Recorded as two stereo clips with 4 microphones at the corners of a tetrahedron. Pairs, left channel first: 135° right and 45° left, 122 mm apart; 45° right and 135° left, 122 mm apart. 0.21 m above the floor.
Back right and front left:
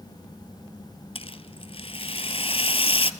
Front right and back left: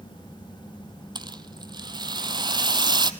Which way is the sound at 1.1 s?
175° right.